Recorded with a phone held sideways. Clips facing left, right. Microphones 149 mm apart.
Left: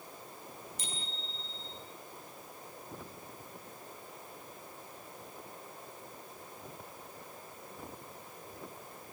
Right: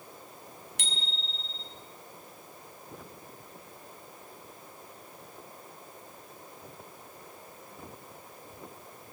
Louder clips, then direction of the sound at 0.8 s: Right 2 dB; 80° right.